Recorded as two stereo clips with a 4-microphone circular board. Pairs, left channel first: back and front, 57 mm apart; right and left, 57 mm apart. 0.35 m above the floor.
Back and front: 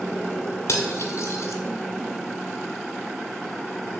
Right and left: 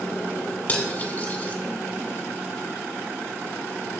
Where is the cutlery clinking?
145° right, 1.6 m.